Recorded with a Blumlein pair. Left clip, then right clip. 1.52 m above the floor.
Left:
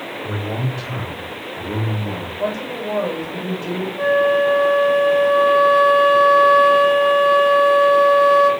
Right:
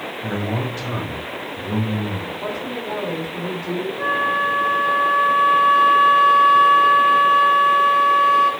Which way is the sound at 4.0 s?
20° left.